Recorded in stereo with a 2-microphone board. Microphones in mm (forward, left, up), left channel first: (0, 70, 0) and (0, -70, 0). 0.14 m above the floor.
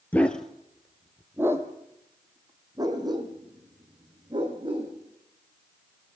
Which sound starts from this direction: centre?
A dog barking, at 0.1 s.